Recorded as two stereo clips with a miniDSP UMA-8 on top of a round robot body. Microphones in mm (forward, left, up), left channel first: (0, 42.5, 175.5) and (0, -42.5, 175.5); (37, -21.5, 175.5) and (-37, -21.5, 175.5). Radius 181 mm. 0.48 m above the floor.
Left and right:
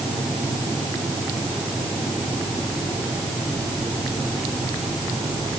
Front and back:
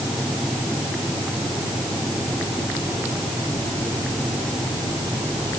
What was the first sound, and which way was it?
Only background noise.